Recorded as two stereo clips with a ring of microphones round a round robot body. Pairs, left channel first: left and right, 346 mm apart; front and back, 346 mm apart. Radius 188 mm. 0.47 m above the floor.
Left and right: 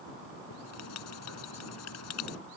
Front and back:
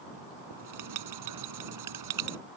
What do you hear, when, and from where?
0.5 s writing: 145° left